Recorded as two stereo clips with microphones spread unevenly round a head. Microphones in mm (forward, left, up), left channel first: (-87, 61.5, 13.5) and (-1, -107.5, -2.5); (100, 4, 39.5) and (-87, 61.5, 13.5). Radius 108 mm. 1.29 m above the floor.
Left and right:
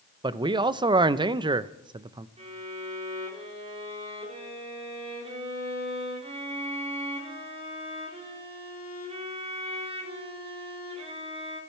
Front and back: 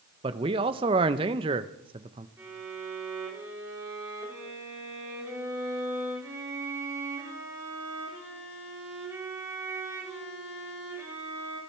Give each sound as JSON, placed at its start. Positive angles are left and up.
{"t": 0.2, "sound": "a man speaking", "azimuth_deg": -130, "distance_m": 0.7}
{"t": 2.4, "sound": "a violin", "azimuth_deg": -120, "distance_m": 4.0}